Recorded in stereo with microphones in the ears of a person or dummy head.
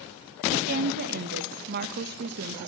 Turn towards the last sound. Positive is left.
turn(degrees=-50)  # may be behind; listen again after turning